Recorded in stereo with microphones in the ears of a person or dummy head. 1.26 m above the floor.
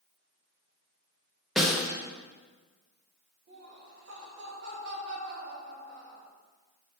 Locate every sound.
1.6 s a snare drum: centre (ahead or behind), 0.6 m
3.5 s laughter: 60° right (ahead or behind), 1.7 m